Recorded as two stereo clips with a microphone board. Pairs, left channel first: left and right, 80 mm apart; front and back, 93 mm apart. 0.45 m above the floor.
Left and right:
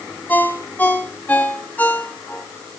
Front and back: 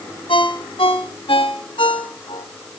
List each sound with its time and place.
0.3 s a ringtone: 20° left, 2 m